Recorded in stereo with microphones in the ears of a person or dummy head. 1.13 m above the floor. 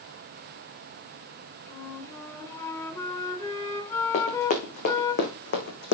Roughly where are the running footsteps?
Left.